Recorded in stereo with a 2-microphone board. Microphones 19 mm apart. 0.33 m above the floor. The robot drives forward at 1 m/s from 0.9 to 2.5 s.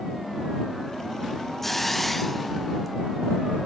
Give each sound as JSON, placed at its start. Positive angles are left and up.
{"t": 1.6, "sound": "a hiss", "side_deg": 10, "distance_m": 0.6}